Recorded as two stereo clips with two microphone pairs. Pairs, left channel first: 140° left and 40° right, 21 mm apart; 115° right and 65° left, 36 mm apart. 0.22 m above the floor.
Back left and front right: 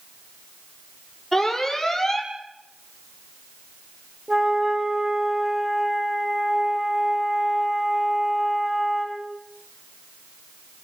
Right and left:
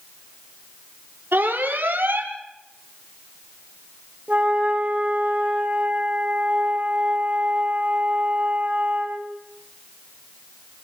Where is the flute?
25° left, 5.5 m.